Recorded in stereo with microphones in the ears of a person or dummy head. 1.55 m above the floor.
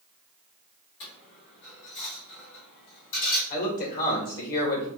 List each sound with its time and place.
1.0 s a dropped coin: 60° left (ahead or behind), 1.8 m
3.5 s a man speaking: 45° left (ahead or behind), 1.7 m